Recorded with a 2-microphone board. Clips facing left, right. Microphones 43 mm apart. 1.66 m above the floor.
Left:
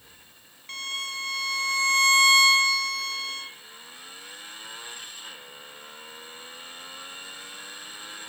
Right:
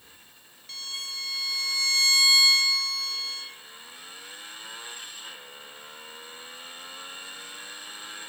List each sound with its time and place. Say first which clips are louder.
0.7 s a violin: left 5 dB; 45° left (ahead or behind), 2 m